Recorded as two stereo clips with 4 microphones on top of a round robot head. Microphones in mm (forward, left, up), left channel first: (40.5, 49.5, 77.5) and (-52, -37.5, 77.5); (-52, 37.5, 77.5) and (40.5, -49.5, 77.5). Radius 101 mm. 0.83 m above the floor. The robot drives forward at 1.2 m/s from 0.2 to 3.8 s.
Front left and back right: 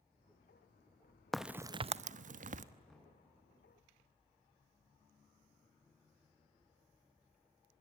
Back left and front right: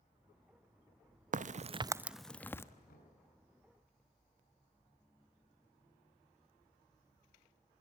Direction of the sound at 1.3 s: 45° right.